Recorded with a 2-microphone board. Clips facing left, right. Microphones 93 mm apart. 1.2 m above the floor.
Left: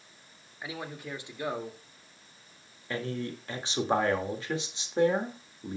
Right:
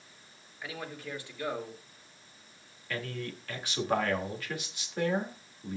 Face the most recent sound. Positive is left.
turn(degrees=25)  # may be behind; listen again after turning